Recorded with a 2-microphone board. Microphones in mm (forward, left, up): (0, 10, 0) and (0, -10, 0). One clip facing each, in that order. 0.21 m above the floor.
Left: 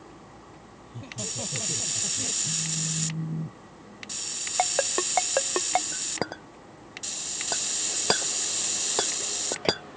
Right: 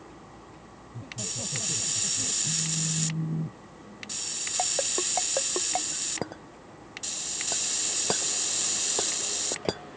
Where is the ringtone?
50° left (ahead or behind).